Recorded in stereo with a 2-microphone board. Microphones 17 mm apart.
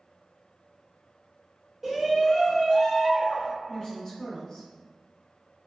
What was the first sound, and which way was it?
A shout, 15° right (ahead or behind).